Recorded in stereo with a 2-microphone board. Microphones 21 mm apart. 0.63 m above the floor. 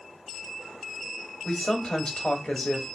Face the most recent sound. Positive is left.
turn(degrees=40)  # may be behind; listen again after turning